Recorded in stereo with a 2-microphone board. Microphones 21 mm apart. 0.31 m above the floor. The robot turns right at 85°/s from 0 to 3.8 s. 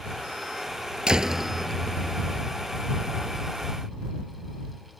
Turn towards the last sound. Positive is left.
turn(degrees=-170)